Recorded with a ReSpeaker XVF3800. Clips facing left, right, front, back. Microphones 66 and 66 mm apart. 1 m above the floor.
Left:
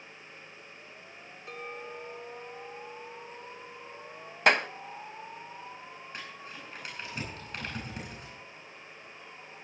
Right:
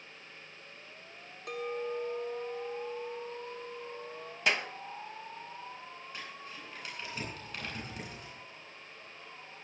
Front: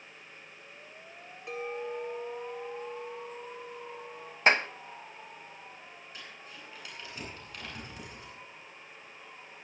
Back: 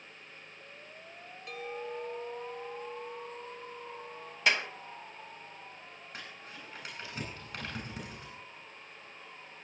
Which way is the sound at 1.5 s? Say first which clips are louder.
Right 6 dB, front 4 dB; 70° right.